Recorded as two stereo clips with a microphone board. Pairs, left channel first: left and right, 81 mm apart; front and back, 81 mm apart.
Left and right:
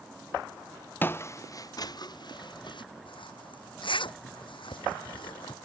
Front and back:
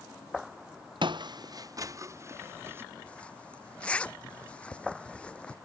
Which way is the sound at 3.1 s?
75° left.